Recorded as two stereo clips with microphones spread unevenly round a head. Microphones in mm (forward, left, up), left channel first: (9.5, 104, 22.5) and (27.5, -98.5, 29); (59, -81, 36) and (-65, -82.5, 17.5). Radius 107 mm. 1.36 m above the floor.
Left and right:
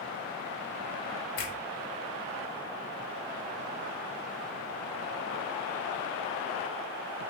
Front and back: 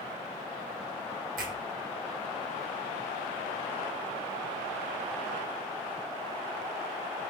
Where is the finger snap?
145° left, 1.7 m.